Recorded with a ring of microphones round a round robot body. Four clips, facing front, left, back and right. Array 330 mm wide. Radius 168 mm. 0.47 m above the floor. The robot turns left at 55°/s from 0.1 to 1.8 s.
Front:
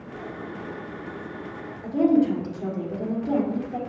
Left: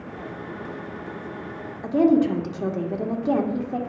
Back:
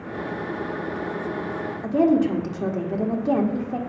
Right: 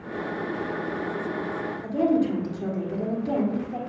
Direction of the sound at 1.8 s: 140° left.